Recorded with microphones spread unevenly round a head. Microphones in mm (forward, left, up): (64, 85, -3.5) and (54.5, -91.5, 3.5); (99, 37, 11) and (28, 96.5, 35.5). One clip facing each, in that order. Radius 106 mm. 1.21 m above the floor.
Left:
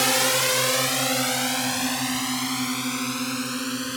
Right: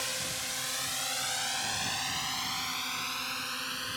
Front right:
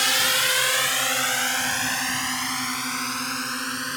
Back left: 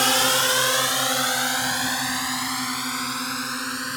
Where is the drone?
100° left; by 4.0 s 55° left.